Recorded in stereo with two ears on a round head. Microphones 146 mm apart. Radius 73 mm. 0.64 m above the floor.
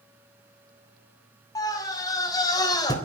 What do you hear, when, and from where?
1.6 s a scream: 25° left (ahead or behind), 5.5 m